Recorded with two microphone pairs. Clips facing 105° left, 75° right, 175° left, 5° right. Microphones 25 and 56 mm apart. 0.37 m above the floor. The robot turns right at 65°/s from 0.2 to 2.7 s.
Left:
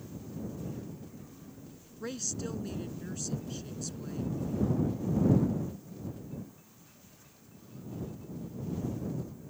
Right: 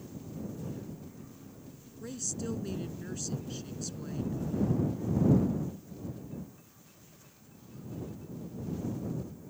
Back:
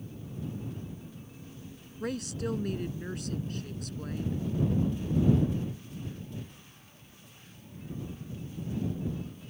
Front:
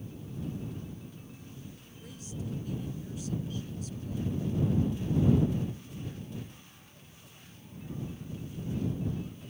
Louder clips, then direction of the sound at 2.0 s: Left 1 dB, back 9 dB; 155° left.